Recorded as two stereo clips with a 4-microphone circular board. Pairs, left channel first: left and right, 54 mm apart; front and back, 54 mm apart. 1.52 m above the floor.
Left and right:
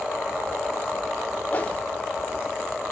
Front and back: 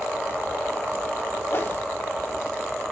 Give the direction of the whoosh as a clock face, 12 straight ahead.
11 o'clock.